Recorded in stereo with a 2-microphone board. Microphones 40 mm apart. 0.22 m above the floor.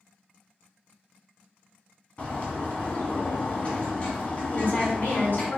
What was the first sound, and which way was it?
A bird, 35° left (ahead or behind).